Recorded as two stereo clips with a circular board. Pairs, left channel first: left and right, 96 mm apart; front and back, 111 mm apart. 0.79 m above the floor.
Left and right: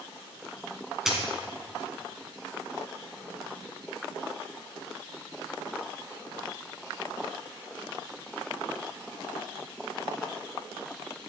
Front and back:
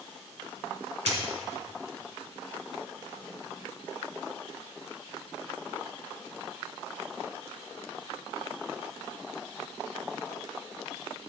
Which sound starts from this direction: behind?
A dropped coin, at 1.1 s.